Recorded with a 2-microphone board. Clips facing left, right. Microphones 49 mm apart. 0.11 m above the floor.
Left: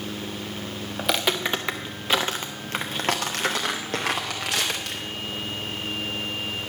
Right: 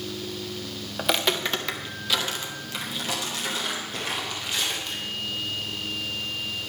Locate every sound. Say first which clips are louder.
1.0 s footsteps: even; 5° right (ahead or behind), 1.0 m; by 5.0 s 70° left (ahead or behind), 2.5 m